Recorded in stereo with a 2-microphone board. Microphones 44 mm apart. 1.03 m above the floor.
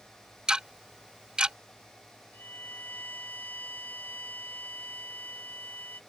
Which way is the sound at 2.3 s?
45° left (ahead or behind).